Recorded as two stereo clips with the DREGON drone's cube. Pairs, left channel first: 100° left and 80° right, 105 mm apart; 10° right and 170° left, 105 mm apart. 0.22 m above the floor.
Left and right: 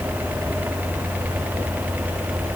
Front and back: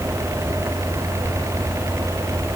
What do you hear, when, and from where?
Only background noise.